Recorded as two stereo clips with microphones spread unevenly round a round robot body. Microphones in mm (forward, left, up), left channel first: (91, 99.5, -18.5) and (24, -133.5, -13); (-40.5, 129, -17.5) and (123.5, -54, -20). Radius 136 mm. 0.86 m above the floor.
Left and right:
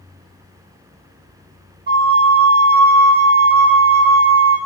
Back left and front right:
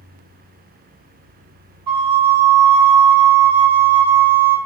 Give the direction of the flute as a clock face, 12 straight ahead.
2 o'clock.